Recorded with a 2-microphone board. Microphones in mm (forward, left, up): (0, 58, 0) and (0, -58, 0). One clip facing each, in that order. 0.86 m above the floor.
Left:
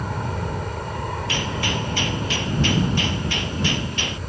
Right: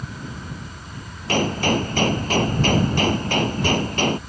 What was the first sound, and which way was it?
An aircraft, 65° left (ahead or behind).